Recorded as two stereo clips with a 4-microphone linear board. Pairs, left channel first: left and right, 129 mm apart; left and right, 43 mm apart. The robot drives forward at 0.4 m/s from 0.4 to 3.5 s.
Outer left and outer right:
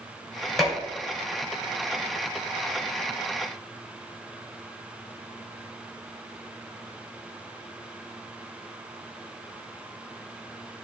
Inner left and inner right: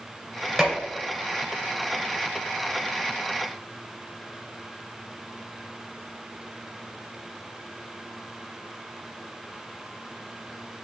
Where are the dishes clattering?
Centre (ahead or behind), 2.5 m.